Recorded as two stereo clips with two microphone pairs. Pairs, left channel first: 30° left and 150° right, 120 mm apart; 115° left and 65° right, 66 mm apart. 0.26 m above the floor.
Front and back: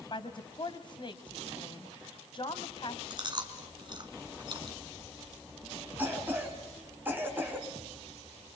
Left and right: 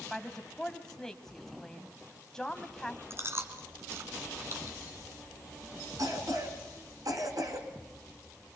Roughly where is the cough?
Right.